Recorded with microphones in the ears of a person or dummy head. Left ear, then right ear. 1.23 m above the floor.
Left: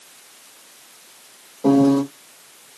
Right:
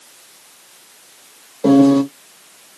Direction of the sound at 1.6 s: 40° right (ahead or behind).